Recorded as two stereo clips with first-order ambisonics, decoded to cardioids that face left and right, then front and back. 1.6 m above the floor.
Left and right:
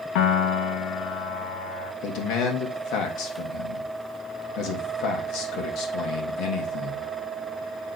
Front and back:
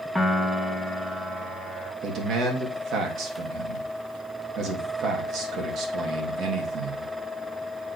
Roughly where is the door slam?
I don't hear a door slam.